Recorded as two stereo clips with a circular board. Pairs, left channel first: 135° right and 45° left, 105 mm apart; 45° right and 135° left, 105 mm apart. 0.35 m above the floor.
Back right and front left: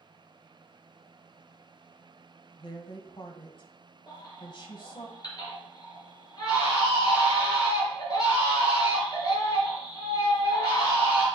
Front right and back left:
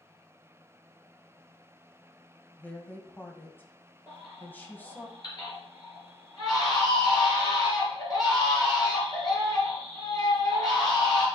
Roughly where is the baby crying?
Right.